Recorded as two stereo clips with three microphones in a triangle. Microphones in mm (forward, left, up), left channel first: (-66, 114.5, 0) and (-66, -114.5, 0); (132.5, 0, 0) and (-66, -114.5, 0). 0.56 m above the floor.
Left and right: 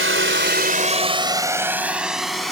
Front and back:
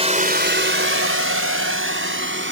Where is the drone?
90° right; by 2.5 s straight behind.